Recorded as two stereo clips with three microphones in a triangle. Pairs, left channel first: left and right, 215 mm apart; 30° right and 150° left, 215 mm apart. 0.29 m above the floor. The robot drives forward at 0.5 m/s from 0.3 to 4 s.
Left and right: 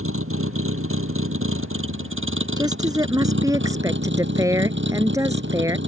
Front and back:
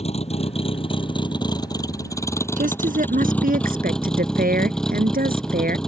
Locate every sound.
0.0 s a vehicle: 90° right; by 5.9 s 115° right
2.6 s a woman speaking: 160° right; by 5.8 s 165° right